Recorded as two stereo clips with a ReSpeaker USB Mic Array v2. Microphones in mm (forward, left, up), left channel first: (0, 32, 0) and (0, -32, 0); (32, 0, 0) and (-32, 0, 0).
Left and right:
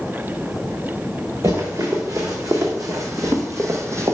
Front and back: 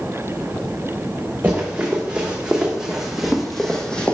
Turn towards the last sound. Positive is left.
turn(degrees=-65)